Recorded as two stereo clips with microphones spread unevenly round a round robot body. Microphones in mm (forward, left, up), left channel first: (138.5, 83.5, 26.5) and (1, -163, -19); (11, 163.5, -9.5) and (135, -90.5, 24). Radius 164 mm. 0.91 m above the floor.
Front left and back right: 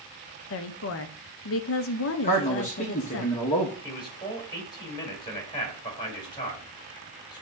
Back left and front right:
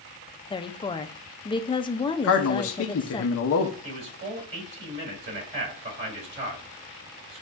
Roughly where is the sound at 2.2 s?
Behind left.